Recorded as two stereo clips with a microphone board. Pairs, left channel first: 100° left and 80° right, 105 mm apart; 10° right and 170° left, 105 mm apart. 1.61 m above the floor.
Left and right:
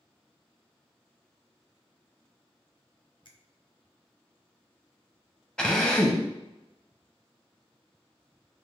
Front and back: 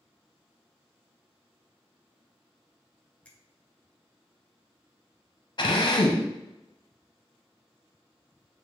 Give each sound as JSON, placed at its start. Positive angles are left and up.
{"t": 3.2, "sound": "a finger snap", "azimuth_deg": 65, "distance_m": 0.7}
{"t": 5.6, "sound": "a drill", "azimuth_deg": 20, "distance_m": 0.7}